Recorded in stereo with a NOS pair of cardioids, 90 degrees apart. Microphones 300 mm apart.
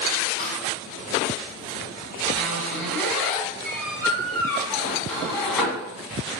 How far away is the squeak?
About 1.7 m.